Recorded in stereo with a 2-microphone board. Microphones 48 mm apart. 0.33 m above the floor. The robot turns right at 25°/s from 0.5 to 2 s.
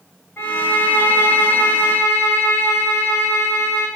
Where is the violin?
50° left, 6 m; by 3.9 s 90° left, 6 m.